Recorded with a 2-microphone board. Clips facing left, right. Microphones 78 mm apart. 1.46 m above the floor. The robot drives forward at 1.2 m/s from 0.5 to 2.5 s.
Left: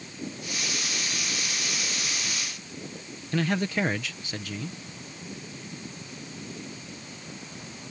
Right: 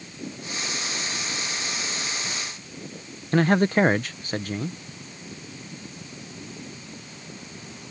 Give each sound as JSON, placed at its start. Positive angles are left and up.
{"t": 3.3, "sound": "a man speaking", "side_deg": -40}